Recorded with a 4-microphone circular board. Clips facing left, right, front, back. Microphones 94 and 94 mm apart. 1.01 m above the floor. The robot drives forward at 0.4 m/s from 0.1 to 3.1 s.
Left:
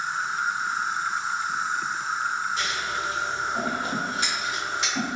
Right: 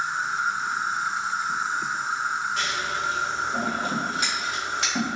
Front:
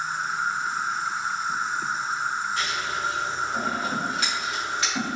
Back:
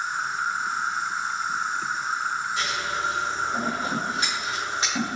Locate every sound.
0.0 s an insect: 30° right, 1.5 m; by 5.2 s 85° right, 0.7 m
2.6 s scissors: 110° right, 1.1 m; by 5.2 s 120° right, 1.2 m